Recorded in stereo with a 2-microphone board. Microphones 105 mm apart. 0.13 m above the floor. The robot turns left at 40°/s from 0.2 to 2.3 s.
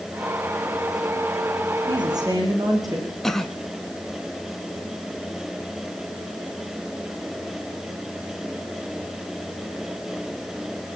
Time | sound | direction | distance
1.9 | a woman speaking | 50° right (ahead or behind) | 7 m
3.2 | a cough | 5° left (ahead or behind) | 1.2 m